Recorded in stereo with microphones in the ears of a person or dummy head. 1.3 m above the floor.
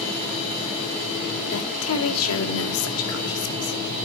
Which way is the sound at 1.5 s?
80° left.